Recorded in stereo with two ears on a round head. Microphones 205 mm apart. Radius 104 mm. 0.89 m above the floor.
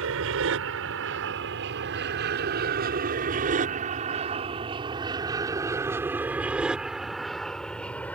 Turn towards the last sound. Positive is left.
turn(degrees=10)  # may be behind; listen again after turning